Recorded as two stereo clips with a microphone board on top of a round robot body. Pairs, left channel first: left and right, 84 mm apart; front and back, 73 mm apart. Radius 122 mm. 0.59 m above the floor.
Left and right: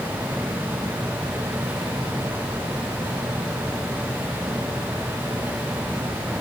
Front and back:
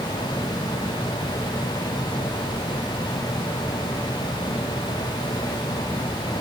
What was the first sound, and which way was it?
Only background noise.